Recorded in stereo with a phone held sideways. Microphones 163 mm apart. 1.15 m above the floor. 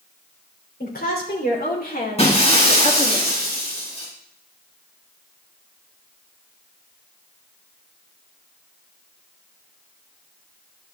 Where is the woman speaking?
70° left (ahead or behind), 4 m; by 3.2 s 55° left (ahead or behind), 1.8 m.